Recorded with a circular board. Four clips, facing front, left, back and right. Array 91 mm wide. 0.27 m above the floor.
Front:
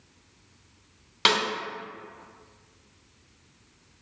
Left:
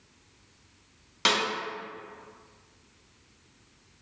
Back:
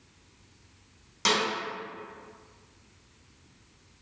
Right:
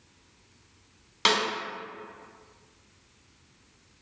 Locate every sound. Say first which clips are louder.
1.2 s a snare drum: right 2 dB, front 2 dB; 10° right, 1.5 m